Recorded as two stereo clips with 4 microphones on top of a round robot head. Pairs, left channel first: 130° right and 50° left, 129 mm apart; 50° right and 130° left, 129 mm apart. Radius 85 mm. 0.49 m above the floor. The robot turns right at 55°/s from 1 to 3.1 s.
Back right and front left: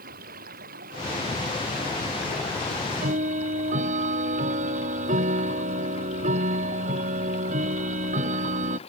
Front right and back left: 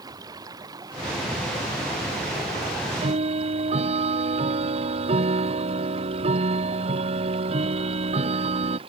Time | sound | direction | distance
0.0 | running water | 65° left | ?
2.7 | ticking | 60° left | ?